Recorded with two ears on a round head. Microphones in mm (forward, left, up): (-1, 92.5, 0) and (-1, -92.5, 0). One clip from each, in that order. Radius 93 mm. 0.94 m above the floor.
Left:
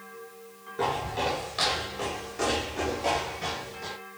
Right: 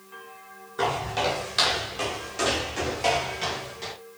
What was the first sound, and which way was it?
Footsteps, 55° right (ahead or behind).